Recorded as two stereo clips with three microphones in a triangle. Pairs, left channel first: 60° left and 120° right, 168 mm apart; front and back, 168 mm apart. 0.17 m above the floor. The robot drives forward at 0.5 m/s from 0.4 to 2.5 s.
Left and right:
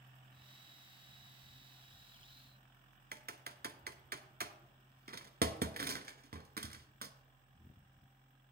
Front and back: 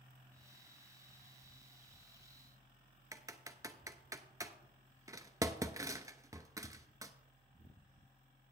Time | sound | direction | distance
3.1 | typing on a keyboard | 115° right | 0.5 m